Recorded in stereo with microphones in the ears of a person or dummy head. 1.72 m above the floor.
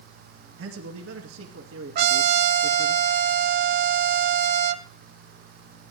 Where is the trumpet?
55° right (ahead or behind), 0.8 m.